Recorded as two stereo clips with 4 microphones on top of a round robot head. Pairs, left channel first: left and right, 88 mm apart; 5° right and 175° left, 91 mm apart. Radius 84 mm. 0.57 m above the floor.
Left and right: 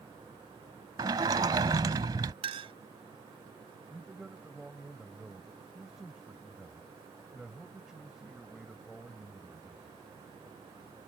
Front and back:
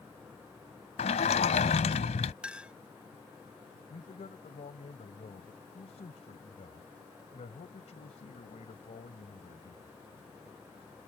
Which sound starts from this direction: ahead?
A man speaking, at 3.9 s.